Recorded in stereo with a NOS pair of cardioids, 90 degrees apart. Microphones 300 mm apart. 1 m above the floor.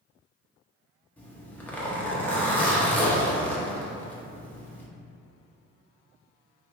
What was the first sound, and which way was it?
A zipper, 5° left.